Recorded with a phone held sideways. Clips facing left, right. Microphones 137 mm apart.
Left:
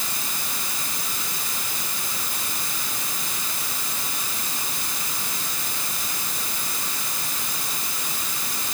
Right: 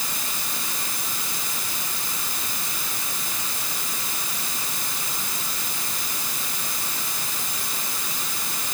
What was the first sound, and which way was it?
Only background noise.